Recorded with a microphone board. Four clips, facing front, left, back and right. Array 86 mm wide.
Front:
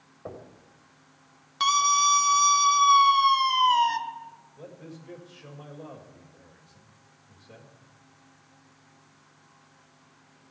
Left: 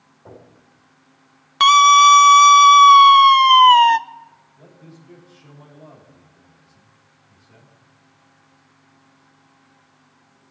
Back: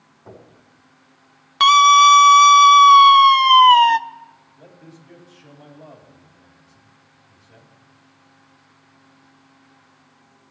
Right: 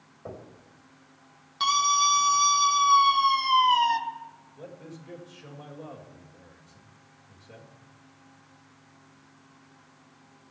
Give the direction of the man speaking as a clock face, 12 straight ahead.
2 o'clock.